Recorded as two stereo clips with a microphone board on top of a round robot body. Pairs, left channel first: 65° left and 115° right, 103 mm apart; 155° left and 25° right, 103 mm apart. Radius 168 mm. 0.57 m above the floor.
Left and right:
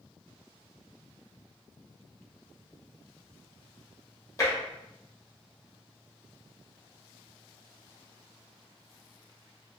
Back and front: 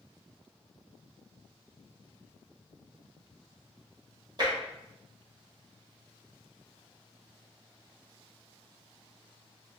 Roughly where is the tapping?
Ahead.